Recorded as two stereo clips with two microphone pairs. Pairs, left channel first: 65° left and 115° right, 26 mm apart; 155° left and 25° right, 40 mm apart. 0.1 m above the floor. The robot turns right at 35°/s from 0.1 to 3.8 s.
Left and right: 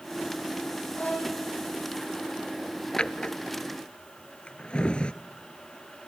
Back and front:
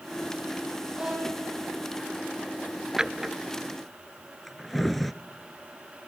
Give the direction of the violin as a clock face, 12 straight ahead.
11 o'clock.